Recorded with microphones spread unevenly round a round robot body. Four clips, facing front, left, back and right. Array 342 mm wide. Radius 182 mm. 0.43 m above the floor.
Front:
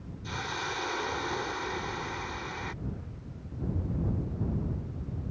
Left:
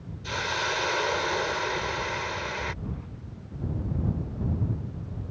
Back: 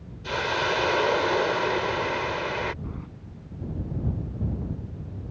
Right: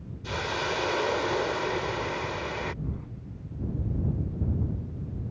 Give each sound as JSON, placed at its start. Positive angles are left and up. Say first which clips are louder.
{"t": 0.2, "sound": "a hiss", "louder": "even, back 10 dB", "azimuth_deg": -175}
{"t": 2.8, "sound": "keys jangling", "louder": "even, back 2 dB", "azimuth_deg": 175}